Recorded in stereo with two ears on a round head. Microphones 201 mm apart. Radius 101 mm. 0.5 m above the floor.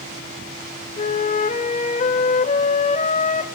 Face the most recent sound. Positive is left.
turn(degrees=35)  # may be behind; listen again after turning